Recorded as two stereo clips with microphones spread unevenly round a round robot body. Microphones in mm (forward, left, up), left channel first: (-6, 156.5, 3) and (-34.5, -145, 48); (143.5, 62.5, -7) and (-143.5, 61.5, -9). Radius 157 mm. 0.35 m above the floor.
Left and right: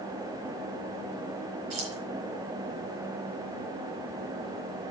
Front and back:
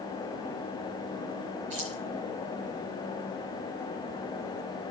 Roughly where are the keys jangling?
Behind right.